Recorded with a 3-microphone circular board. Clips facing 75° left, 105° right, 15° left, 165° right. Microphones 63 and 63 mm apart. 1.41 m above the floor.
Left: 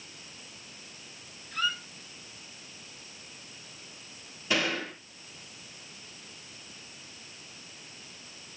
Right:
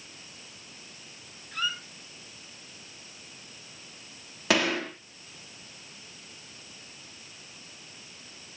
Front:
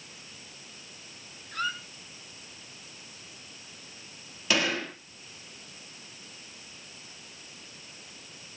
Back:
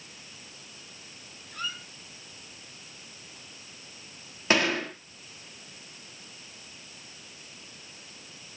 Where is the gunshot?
115° right, 3.5 m.